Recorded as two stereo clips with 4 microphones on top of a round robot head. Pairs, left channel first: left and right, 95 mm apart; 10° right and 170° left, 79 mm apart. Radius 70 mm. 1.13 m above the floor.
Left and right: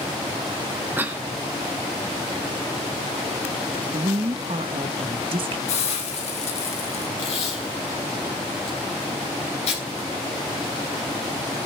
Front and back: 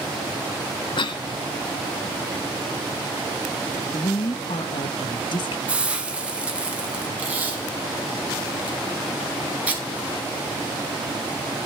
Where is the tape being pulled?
100° left, 6 m.